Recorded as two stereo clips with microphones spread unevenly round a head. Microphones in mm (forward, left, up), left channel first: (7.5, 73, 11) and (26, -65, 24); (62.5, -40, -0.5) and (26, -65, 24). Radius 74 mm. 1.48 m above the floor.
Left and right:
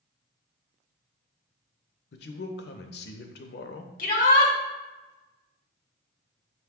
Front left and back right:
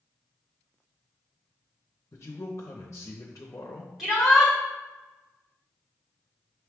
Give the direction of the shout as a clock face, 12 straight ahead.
8 o'clock.